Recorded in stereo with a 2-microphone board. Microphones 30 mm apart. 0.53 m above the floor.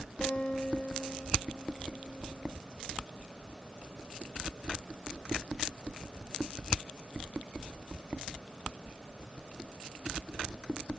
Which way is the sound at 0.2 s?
60° left (ahead or behind).